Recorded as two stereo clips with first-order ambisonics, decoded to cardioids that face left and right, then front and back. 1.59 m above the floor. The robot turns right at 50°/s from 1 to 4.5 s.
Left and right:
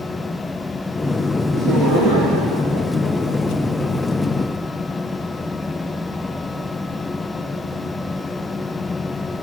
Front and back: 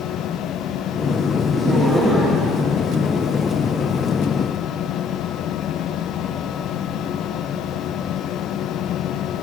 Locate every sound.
1.5 s laughter: 120° right, 3 m; by 3.7 s 15° right, 3 m